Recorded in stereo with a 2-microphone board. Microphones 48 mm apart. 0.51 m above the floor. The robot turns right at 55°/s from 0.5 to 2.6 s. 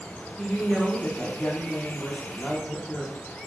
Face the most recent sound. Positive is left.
turn(degrees=10)  # may be behind; listen again after turning